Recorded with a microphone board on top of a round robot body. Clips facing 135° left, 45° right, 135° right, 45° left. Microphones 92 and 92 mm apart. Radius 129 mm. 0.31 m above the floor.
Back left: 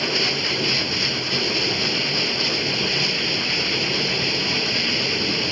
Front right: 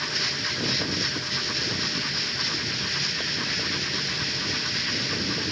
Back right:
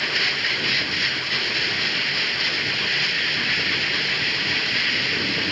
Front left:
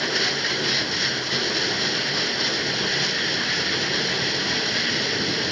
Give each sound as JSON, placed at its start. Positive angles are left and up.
{"t": 0.0, "sound": "running water", "azimuth_deg": 110}